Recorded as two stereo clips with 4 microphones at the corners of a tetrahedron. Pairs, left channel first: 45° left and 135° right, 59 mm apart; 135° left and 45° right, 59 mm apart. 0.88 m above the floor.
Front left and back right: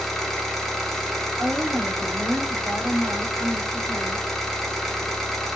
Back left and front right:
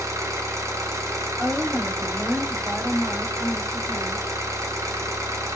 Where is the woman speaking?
95° right, 1.4 m.